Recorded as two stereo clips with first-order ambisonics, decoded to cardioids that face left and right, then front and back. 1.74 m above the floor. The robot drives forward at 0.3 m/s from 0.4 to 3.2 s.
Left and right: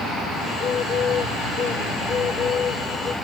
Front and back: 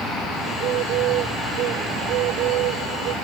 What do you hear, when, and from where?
0.5 s a bird: 150° left; by 3.1 s 155° left